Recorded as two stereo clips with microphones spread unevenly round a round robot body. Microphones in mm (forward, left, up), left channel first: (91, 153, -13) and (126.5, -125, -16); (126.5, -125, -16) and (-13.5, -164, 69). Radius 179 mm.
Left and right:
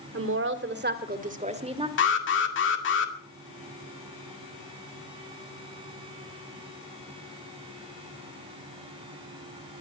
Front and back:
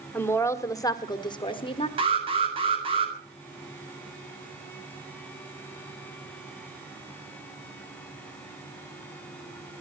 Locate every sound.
0.1 s a woman speaking: 45° right, 2.0 m; by 1.9 s 10° right, 2.0 m
2.0 s an alarm: 110° left, 2 m